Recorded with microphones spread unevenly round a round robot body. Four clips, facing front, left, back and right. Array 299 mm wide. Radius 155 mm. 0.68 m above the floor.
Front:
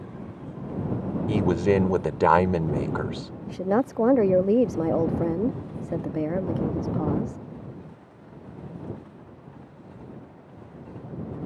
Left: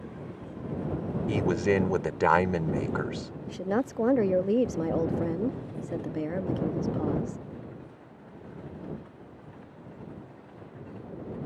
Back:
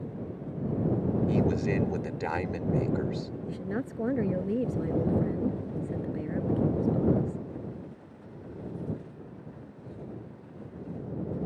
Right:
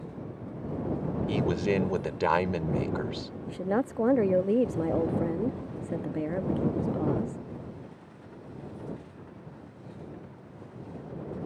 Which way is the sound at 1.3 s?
10° left.